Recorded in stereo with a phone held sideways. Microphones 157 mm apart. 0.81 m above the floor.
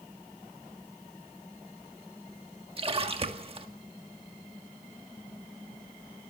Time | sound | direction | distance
2.8 | a splash | 35° right (ahead or behind) | 1.6 m